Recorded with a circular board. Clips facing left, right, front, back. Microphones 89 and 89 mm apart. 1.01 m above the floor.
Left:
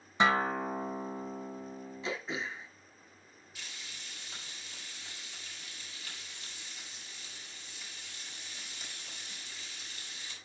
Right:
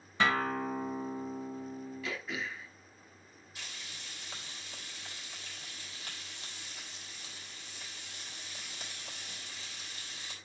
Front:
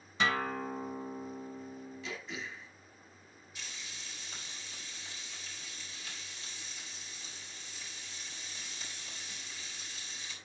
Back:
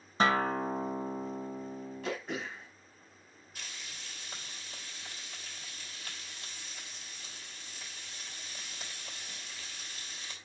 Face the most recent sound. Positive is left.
turn(degrees=-140)